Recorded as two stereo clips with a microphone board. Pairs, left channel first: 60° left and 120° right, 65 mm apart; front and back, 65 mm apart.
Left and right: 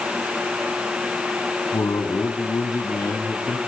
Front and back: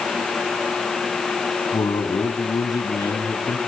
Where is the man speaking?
20° left, 4.5 m.